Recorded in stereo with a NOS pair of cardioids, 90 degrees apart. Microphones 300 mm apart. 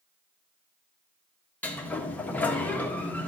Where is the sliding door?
5° left, 1.6 m.